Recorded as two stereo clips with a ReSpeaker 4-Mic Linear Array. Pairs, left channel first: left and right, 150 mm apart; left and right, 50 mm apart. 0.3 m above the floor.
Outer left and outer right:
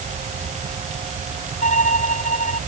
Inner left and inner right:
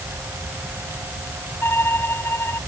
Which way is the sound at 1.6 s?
55° left (ahead or behind).